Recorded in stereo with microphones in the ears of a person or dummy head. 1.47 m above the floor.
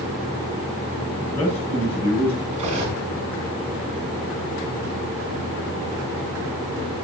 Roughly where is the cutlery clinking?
Right.